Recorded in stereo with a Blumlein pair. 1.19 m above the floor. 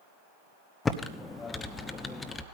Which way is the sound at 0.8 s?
15° left.